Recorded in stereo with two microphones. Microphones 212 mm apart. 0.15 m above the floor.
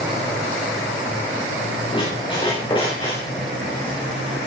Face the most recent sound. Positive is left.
turn(degrees=25)  # may be behind; listen again after turning